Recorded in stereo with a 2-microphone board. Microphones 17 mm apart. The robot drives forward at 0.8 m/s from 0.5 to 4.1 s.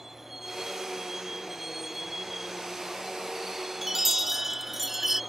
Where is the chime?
20° right (ahead or behind).